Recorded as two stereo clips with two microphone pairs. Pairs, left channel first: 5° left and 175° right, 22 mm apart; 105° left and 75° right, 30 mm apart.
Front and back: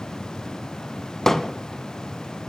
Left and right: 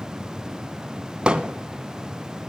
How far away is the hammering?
About 0.8 m.